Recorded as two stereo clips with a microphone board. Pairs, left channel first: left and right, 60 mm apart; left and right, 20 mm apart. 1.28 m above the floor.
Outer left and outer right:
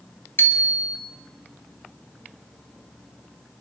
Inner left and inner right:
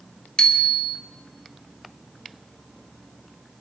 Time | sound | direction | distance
0.4 | a bicycle bell | 40° left (ahead or behind) | 2 m